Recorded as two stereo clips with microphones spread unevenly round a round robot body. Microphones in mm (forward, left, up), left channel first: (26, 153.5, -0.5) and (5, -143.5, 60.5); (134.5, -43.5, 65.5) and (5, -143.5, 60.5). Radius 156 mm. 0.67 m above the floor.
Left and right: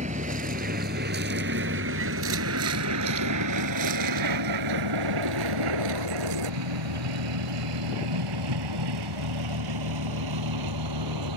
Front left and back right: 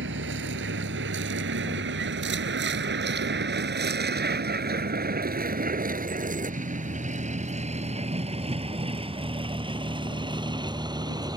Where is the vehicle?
160° right; by 11.4 s 75° right.